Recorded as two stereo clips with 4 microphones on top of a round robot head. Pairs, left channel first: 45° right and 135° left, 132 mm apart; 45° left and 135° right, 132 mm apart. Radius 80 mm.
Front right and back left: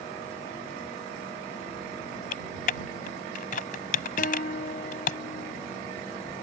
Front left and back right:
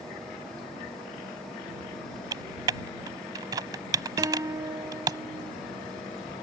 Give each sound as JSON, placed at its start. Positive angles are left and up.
{"t": 2.3, "sound": "typing on a keyboard", "azimuth_deg": -75}
{"t": 4.2, "sound": "a guitar", "azimuth_deg": -70}